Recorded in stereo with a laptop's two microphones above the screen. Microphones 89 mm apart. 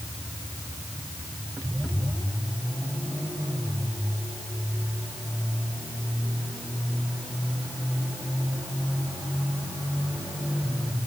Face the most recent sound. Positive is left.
No sound to turn to.